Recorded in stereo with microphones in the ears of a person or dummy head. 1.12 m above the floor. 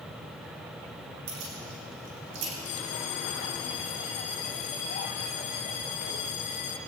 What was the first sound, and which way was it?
Keys jangling, 85° right.